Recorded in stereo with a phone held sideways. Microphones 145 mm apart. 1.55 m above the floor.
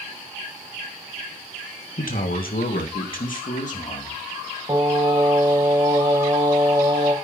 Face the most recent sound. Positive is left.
turn(degrees=-25)  # may be behind; listen again after turning